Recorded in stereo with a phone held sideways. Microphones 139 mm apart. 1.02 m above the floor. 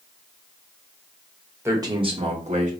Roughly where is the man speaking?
Centre.